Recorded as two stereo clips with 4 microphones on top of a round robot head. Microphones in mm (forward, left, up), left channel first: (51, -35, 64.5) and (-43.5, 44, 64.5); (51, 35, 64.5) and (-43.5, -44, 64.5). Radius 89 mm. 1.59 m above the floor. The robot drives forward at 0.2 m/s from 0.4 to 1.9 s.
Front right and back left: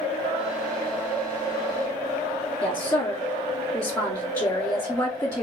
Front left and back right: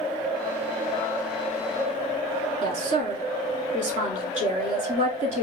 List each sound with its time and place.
2.6 s a woman speaking: 115° right, 1.1 m